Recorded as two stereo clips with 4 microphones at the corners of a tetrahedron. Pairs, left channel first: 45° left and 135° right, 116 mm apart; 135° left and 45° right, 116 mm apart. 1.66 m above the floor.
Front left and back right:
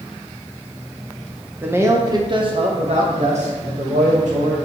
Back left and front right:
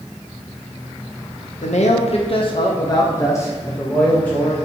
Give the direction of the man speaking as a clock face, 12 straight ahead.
7 o'clock.